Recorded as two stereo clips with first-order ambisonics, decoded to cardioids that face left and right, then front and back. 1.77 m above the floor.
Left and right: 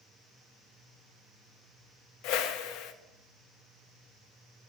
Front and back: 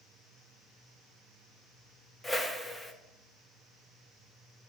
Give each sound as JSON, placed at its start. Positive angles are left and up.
{"t": 2.2, "sound": "a whoosh", "azimuth_deg": 80, "distance_m": 0.6}